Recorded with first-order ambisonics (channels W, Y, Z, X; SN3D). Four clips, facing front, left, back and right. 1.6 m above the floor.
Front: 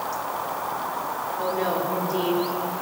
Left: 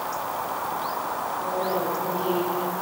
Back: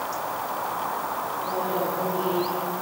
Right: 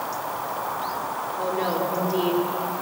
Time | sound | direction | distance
1.4 | a woman speaking | 55° right | 6 m